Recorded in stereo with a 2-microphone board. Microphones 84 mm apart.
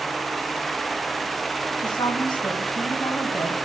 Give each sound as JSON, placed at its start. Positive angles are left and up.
{"t": 1.8, "sound": "a woman speaking", "side_deg": 65, "distance_m": 3.5}